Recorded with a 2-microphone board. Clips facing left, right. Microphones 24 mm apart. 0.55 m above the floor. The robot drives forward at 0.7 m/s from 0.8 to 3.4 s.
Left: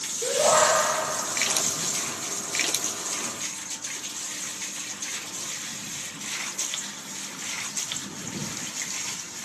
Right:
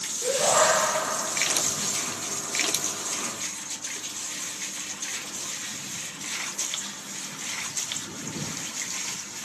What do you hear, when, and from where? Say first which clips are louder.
0.2 s a shout: left 2 dB; 35° left (ahead or behind), 1.6 m